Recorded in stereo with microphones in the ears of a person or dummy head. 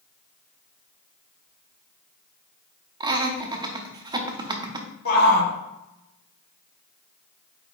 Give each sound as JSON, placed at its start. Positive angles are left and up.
{"t": 3.0, "sound": "laughter", "side_deg": -25, "distance_m": 0.6}
{"t": 5.0, "sound": "a shout", "side_deg": 55, "distance_m": 0.9}